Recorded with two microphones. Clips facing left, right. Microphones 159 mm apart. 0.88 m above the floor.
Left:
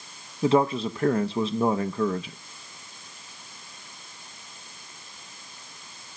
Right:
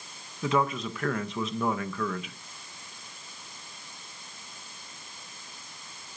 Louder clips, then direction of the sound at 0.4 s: Left 6 dB; 30° left (ahead or behind).